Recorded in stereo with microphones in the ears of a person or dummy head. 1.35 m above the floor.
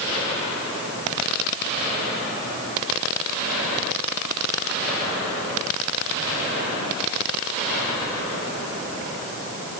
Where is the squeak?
I don't hear a squeak.